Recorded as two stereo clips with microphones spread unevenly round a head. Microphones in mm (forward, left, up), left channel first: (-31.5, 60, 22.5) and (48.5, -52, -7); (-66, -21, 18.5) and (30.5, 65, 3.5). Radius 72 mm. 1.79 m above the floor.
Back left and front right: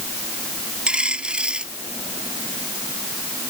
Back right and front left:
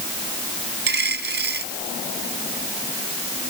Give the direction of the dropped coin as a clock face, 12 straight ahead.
11 o'clock.